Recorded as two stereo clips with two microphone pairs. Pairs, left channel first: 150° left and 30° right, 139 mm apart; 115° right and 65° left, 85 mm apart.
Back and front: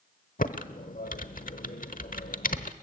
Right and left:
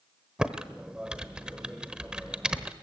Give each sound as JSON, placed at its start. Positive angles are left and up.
{"t": 0.4, "sound": "typing on a keyboard", "azimuth_deg": 145, "distance_m": 1.1}